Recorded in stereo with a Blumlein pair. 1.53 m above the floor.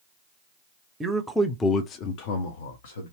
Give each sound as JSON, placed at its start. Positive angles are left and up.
{"t": 1.0, "sound": "a man speaking", "azimuth_deg": -20, "distance_m": 0.7}